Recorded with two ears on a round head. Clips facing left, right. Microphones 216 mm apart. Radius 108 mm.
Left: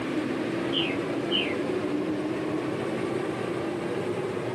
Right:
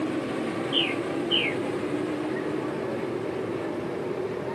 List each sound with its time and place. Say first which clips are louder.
0.7 s a bird: even; 35° right (ahead or behind), 2.5 m